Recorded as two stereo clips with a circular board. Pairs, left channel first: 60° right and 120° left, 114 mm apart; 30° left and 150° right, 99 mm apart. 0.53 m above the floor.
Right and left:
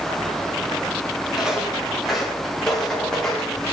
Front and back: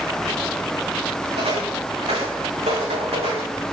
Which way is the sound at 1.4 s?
155° right.